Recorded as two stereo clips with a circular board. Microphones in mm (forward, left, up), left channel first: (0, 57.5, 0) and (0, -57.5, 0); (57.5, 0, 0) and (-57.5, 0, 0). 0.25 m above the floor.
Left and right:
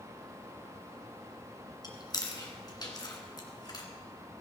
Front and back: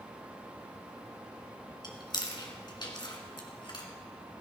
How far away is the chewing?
About 2 m.